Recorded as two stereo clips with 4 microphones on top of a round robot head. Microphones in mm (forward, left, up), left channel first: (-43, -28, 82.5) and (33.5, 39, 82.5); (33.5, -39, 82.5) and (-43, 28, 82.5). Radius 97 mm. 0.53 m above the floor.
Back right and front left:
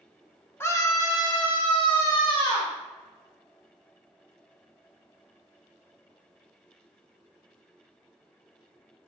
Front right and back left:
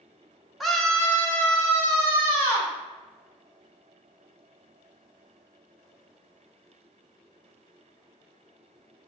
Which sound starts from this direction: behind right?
A scream, at 0.6 s.